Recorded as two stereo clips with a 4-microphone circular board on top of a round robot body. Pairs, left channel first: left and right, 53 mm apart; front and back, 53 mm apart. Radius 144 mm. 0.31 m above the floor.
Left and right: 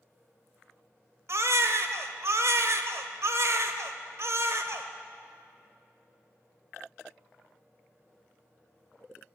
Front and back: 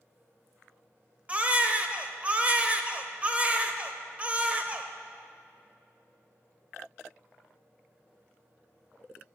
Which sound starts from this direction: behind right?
A baby crying, at 1.3 s.